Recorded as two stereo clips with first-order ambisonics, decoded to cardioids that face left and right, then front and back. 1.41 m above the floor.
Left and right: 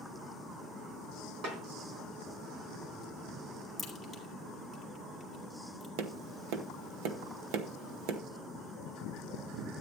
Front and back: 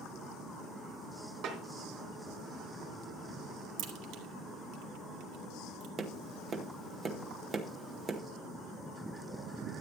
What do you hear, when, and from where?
1.4 s a snare drum: 135° right, 3.5 m
3.8 s a crack: straight behind, 1.9 m
6.0 s tapping: 110° right, 1.0 m